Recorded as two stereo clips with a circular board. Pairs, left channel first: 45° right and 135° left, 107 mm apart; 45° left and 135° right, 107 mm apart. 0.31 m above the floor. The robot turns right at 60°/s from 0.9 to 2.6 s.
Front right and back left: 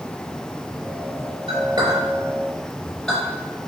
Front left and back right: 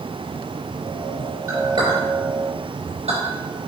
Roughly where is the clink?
Behind.